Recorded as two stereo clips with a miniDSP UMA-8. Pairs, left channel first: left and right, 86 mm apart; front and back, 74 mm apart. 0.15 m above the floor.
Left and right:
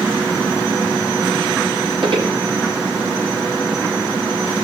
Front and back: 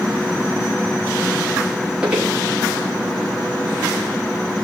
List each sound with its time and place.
2.0 s footsteps: 100° right, 5 m